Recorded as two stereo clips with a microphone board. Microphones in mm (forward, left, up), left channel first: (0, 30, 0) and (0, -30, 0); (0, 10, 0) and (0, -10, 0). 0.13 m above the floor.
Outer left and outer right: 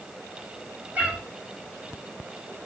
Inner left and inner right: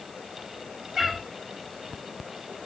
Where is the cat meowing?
25° right (ahead or behind), 1.6 m.